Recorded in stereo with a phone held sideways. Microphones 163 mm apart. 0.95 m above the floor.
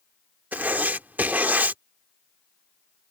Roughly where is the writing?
Centre.